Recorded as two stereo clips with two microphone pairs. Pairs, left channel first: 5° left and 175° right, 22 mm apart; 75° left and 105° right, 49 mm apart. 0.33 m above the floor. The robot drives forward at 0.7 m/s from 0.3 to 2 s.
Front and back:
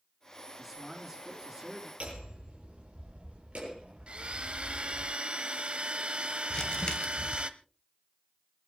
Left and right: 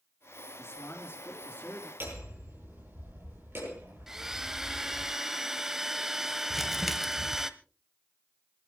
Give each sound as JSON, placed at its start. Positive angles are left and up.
{"t": 0.6, "sound": "a man speaking", "azimuth_deg": 105, "distance_m": 4.5}
{"t": 2.0, "sound": "hammering", "azimuth_deg": -150, "distance_m": 7.5}
{"t": 4.1, "sound": "a blender", "azimuth_deg": 170, "distance_m": 0.9}
{"t": 6.5, "sound": "crumpling", "azimuth_deg": -20, "distance_m": 1.4}